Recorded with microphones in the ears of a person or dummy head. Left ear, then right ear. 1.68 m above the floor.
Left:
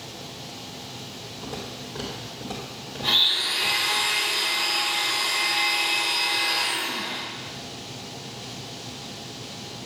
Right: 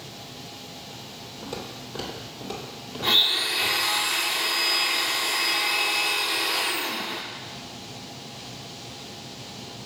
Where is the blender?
65° right (ahead or behind), 1.4 m.